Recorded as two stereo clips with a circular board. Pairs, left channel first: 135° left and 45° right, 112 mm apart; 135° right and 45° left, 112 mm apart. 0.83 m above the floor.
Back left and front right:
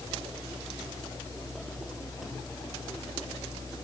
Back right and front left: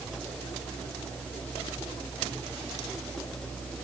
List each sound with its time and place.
Only background noise.